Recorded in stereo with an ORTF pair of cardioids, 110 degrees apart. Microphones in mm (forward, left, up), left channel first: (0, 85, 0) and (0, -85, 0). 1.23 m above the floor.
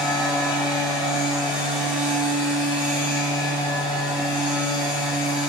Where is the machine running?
25° left, 1.5 m.